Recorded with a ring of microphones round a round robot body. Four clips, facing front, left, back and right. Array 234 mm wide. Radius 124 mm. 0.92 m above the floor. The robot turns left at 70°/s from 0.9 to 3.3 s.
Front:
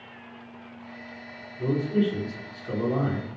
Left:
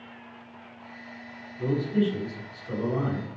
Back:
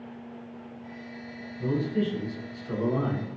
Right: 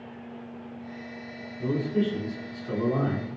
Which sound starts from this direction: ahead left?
A man speaking, at 1.6 s.